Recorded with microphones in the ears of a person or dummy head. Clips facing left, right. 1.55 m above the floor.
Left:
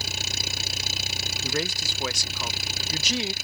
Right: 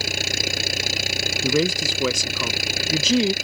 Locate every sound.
0.0 s an engine running: 60° right (ahead or behind)
1.4 s a man speaking: 60° right (ahead or behind)